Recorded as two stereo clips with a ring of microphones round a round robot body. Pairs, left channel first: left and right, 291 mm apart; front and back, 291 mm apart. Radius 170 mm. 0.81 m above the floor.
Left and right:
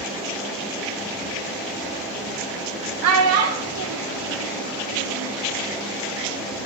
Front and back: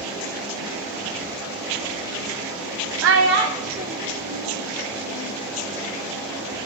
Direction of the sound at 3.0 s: 135° right.